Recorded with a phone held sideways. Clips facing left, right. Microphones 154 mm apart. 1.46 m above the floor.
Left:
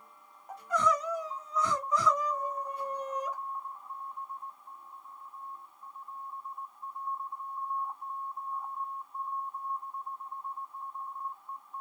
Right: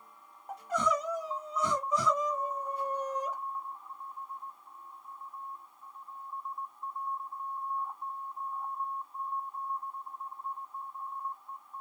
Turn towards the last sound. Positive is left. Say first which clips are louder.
# left 1 dB
turn(degrees=-25)  # may be behind; listen again after turning